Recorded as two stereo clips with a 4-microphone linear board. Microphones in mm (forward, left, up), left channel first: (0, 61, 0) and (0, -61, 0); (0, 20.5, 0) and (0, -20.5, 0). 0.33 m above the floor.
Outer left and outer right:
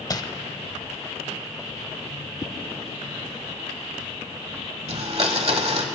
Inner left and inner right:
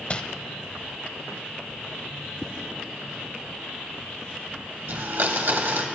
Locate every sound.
0.1 s crumpling: 30° left (ahead or behind), 0.6 m
2.4 s a whoosh: 25° left (ahead or behind), 0.6 m
4.9 s a blender: 55° right (ahead or behind), 1.2 m